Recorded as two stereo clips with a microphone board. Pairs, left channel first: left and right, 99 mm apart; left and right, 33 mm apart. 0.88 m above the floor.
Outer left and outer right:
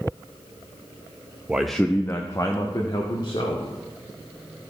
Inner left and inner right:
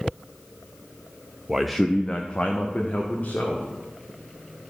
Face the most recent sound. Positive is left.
turn(degrees=50)  # may be behind; listen again after turning